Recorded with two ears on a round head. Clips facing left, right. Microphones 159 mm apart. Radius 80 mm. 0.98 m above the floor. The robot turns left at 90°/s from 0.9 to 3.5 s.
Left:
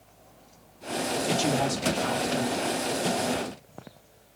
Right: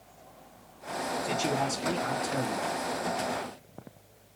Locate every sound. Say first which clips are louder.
1.2 s a man speaking: left 4 dB; 55° left, 1.5 m; by 2.9 s 90° right, 1.5 m